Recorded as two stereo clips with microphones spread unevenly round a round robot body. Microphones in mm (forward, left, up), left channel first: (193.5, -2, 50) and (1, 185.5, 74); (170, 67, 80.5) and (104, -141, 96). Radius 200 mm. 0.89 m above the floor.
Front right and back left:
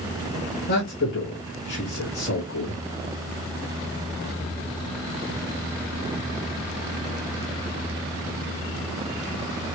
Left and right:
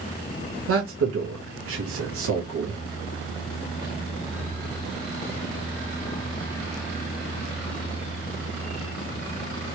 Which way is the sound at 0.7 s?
105° right.